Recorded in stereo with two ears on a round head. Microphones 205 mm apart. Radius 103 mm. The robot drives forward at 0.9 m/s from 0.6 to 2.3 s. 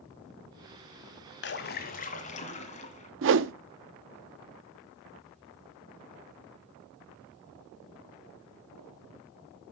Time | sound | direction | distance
1.4 | a splash | 50° left (ahead or behind) | 1.2 m
3.2 | a whoosh | 55° right (ahead or behind) | 0.6 m